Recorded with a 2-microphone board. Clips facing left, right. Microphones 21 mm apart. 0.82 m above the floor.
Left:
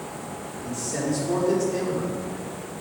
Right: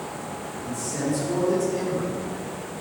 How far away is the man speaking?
About 2.5 m.